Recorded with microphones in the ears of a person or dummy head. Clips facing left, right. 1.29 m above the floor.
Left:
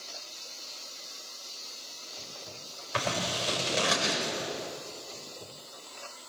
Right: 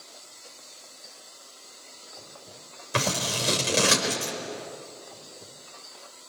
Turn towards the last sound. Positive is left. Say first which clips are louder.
# right 3 dB
turn(degrees=-40)  # may be behind; listen again after turning